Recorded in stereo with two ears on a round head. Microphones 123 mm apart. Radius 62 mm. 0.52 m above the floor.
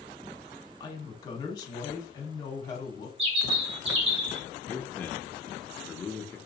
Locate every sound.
0.8 s a woman speaking: 25° left (ahead or behind), 1.3 m
3.2 s a bird: 45° right (ahead or behind), 0.8 m
4.7 s a man speaking: 15° left (ahead or behind), 0.6 m